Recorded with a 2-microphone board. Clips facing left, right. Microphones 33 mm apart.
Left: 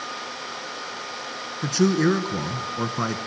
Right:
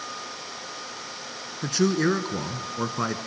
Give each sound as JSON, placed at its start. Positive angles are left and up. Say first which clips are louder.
{"t": 1.6, "sound": "a man speaking", "louder": "left 2 dB", "side_deg": -5, "distance_m": 1.3}